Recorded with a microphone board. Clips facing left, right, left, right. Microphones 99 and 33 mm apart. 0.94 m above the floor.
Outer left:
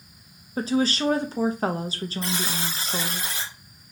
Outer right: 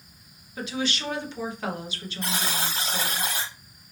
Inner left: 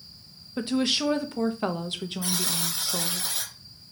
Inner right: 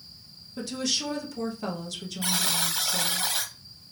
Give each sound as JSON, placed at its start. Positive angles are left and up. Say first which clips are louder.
{"t": 0.6, "sound": "a woman speaking", "louder": "outer left 7 dB, inner left 5 dB", "side_deg": 40, "distance_m": 0.7}
{"t": 2.2, "sound": "a buzzer", "louder": "outer right 2 dB, inner right 4 dB", "side_deg": -60, "distance_m": 1.4}